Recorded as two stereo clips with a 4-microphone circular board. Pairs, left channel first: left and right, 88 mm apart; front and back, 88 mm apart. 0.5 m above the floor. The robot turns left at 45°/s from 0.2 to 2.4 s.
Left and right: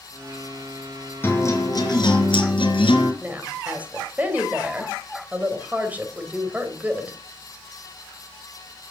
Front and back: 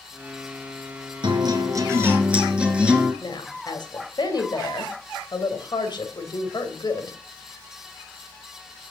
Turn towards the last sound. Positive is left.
turn(degrees=-20)